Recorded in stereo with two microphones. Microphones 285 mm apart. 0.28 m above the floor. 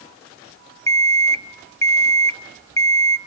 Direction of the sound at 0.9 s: 10° left (ahead or behind).